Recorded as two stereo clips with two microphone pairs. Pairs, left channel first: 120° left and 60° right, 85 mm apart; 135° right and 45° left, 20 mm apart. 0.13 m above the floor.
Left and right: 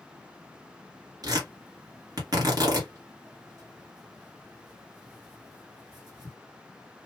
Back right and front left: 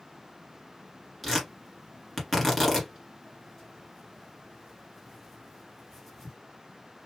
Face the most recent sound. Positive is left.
turn(degrees=-60)